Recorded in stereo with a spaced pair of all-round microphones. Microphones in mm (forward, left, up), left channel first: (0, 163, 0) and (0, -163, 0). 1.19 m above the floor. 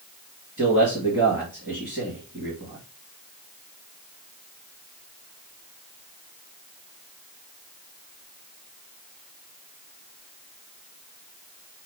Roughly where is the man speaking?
Right.